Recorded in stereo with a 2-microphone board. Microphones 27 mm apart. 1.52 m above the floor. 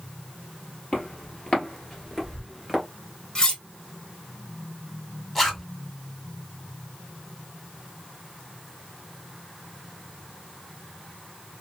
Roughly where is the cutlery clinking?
Left.